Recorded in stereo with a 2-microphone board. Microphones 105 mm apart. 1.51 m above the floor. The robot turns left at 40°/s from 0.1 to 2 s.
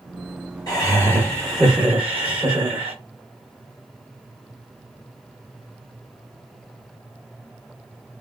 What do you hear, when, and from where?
0.7 s laughter: 35° left, 1.0 m; by 3.0 s 20° right, 1.0 m